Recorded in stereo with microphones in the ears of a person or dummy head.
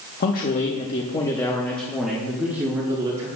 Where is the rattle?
No rattle in this recording.